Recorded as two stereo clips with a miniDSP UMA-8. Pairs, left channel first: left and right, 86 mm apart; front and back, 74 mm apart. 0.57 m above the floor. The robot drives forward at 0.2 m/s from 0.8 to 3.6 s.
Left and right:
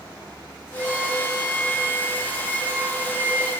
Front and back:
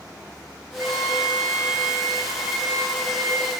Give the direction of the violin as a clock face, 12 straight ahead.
5 o'clock.